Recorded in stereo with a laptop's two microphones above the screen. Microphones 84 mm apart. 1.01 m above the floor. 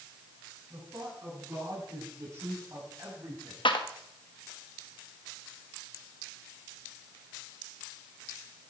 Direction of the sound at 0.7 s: 35° right (ahead or behind).